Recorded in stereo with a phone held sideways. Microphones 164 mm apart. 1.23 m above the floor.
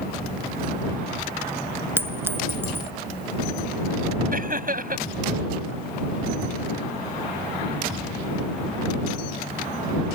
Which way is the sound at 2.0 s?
15° right (ahead or behind).